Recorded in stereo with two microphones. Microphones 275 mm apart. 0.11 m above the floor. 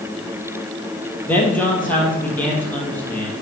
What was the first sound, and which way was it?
A man speaking, 5° left (ahead or behind).